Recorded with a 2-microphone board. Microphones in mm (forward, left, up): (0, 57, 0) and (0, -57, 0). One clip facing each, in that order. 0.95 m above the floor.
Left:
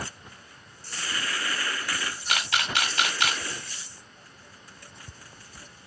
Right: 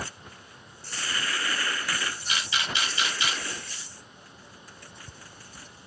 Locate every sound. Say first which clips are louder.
2.3 s a camera shutter: left 5 dB; 70° left (ahead or behind), 1.6 m